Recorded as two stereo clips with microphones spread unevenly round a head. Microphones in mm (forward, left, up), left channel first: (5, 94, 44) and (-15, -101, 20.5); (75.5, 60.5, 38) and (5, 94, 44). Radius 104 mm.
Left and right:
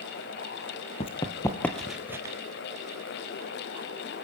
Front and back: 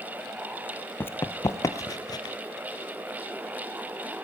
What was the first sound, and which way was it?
Running footsteps, 35° left.